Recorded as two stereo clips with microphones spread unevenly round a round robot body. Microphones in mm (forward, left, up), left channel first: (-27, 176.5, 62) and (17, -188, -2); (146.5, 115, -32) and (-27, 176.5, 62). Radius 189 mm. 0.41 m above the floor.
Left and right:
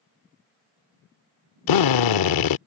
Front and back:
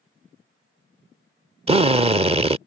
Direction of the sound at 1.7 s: 80° left.